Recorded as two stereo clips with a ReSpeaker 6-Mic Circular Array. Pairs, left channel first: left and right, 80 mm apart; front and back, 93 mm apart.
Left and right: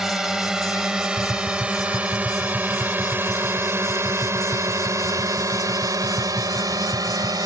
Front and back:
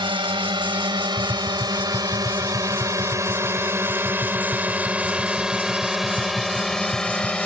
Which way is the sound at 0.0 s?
175° right.